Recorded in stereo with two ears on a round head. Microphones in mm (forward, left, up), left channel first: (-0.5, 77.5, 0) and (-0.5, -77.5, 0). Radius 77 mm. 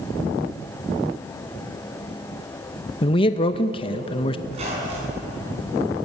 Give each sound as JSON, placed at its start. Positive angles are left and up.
{"t": 3.0, "sound": "a man speaking", "side_deg": 30, "distance_m": 0.6}
{"t": 4.5, "sound": "a squeak", "side_deg": -35, "distance_m": 7.0}